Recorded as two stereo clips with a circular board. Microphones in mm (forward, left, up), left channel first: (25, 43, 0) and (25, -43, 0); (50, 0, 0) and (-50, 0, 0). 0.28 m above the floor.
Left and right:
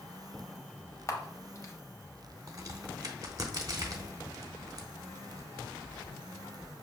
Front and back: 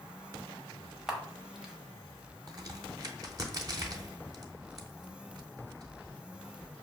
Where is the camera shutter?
100° left, 0.6 m.